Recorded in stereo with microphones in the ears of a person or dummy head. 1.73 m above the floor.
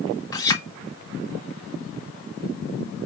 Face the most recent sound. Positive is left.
turn(degrees=15)  # may be behind; listen again after turning